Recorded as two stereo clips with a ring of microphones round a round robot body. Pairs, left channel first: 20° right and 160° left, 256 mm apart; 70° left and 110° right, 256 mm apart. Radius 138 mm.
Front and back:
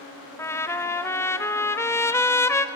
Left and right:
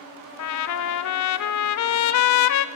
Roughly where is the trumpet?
Ahead left.